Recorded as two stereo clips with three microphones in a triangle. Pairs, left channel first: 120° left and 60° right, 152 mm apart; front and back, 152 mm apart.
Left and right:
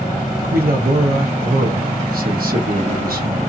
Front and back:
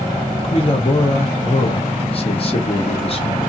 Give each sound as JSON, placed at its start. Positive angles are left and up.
{"t": 0.4, "sound": "a man speaking", "azimuth_deg": -50, "distance_m": 0.9}